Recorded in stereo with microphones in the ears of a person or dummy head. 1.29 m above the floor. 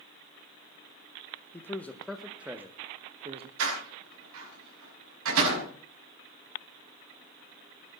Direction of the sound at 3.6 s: 80° right.